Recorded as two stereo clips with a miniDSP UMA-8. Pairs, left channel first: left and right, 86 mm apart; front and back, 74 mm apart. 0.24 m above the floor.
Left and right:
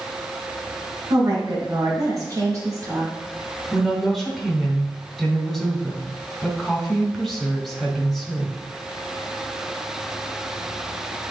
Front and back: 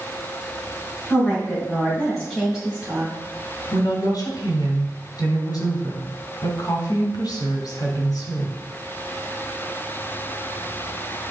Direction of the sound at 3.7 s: Straight ahead.